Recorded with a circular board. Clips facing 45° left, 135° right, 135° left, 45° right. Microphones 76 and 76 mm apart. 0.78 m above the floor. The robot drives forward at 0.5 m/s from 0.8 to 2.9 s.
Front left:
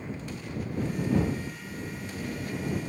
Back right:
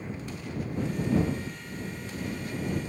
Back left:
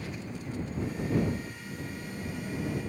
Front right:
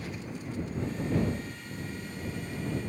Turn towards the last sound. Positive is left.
turn(degrees=125)